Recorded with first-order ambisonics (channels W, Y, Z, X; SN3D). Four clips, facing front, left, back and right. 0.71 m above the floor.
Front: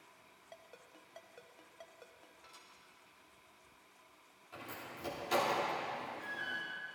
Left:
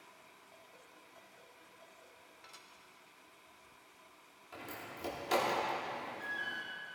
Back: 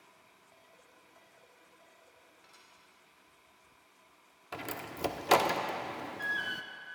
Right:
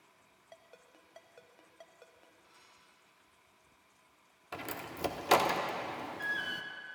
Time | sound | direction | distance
0.5 | a ringtone | 45° right | 1.2 m
2.4 | dishes clattering | 85° left | 1.3 m
4.5 | a door slam | 145° right | 0.7 m